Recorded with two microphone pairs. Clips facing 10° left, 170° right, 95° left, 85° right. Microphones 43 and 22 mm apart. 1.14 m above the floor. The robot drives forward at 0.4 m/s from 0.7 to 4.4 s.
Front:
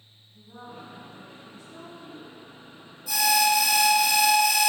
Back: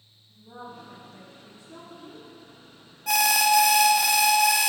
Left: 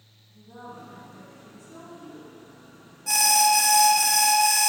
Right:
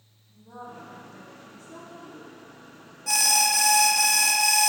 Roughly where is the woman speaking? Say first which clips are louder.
Back 2 dB, right 1 dB; behind right.